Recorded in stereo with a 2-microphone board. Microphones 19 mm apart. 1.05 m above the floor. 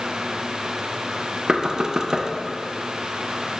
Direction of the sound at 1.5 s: 35° right (ahead or behind).